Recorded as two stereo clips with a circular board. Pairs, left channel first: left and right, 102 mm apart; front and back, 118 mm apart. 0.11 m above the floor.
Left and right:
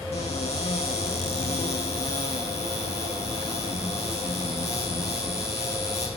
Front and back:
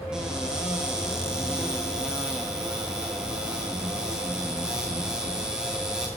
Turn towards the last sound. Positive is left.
turn(degrees=95)